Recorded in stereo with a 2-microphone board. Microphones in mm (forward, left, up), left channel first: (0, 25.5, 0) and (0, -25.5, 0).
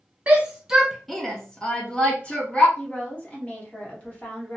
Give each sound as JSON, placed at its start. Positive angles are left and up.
{"t": 0.3, "sound": "a shout", "side_deg": -25, "distance_m": 0.5}
{"t": 2.8, "sound": "a woman speaking", "side_deg": 30, "distance_m": 1.2}